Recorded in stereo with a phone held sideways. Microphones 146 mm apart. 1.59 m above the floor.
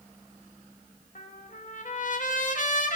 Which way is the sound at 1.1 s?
60° left (ahead or behind).